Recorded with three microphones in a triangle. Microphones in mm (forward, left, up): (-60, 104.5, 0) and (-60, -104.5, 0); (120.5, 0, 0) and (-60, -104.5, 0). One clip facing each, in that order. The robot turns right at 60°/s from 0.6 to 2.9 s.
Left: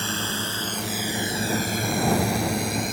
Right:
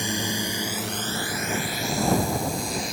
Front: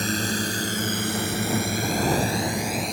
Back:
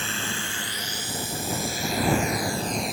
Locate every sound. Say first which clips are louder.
0.0 s a drone: right 2 dB, front 8 dB; 15° right; by 2.9 s 125° left